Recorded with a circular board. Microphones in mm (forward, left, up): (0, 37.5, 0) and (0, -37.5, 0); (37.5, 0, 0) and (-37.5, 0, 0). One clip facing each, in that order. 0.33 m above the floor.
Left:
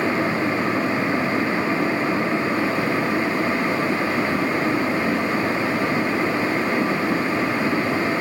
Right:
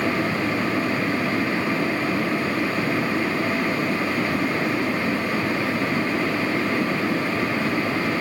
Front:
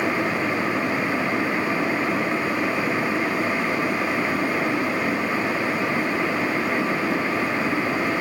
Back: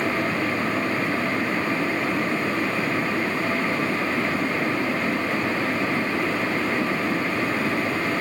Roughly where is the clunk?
I don't hear a clunk.